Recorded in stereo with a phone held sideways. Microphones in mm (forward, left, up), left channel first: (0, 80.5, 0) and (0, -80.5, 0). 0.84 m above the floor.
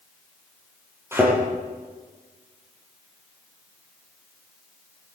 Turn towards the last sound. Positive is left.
turn(degrees=-15)  # may be behind; listen again after turning